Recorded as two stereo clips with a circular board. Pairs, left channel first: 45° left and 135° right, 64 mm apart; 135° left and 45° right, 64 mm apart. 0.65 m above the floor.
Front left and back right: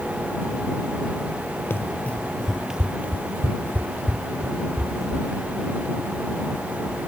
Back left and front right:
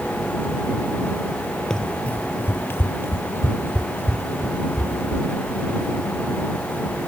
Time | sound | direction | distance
1.7 | running footsteps | 60° left | ?